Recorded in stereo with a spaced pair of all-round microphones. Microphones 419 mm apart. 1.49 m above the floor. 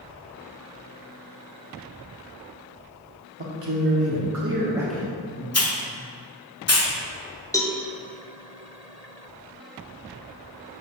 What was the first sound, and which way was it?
A man speaking, 80° right.